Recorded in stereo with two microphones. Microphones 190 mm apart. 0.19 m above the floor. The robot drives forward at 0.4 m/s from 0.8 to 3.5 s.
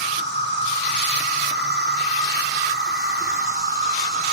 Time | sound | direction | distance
0.0 | an insect | 70° right (ahead or behind) | 3 m